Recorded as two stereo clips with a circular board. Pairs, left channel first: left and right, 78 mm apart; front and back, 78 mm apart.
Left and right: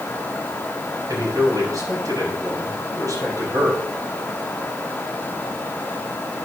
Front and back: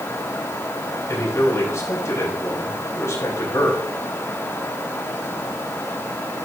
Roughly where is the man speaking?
Ahead right.